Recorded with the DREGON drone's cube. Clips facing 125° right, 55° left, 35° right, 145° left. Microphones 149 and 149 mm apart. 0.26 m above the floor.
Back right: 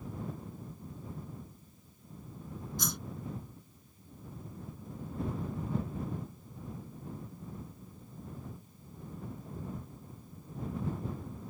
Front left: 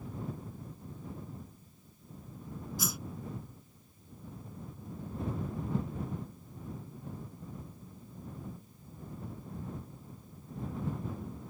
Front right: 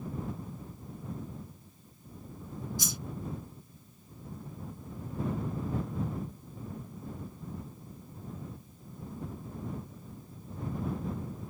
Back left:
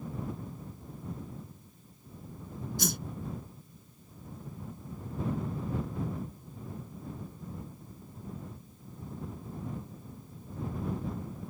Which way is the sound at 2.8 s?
140° left.